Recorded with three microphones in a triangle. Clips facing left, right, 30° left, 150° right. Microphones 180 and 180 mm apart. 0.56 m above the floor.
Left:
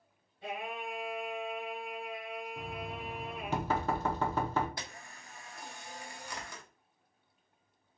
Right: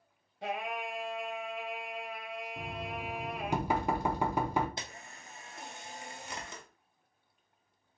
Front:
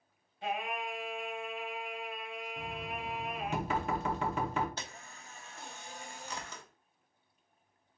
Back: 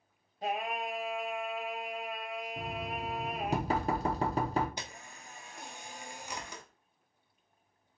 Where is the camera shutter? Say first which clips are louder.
Right 1 dB, back 1 dB; 95° right, 0.8 m.